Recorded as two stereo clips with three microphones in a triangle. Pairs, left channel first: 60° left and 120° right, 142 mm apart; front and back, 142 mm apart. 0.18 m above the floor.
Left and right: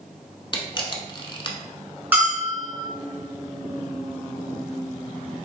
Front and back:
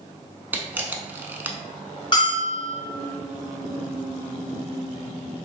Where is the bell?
45° right, 1.9 m.